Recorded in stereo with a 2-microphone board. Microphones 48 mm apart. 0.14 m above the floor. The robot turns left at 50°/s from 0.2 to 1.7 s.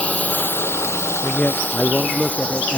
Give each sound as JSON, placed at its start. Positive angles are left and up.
{"t": 0.0, "sound": "a drone", "side_deg": 30}
{"t": 1.2, "sound": "a man speaking", "side_deg": 45}